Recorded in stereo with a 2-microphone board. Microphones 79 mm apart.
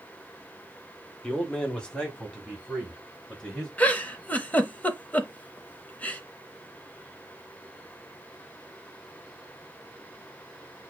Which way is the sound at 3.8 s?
20° left (ahead or behind).